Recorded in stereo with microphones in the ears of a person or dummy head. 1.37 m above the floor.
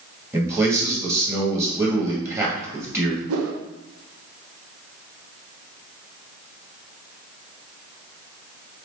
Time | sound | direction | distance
0.3 | a man speaking | 15° right (ahead or behind) | 1.9 m
3.3 | a whoosh | 80° right | 0.7 m